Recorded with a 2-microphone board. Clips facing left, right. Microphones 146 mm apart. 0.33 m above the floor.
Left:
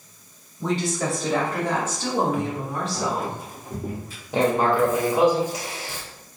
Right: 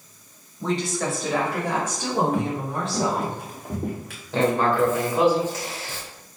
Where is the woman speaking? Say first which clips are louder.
Left 1 dB; 5° left (ahead or behind), 1.9 m; by 3.3 s 30° right (ahead or behind), 1.7 m.